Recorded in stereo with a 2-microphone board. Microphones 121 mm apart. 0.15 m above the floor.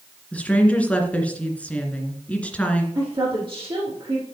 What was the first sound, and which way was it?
A woman speaking, 10° left (ahead or behind).